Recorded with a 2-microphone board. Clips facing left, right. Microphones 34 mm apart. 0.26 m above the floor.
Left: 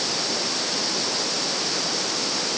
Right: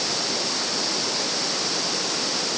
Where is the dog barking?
I don't hear a dog barking.